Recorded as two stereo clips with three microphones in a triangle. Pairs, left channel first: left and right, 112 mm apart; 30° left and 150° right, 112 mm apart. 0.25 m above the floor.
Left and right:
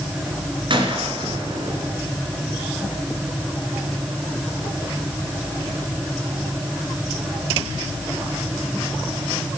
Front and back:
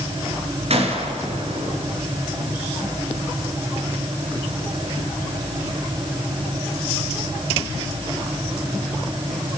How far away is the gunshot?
About 2.5 m.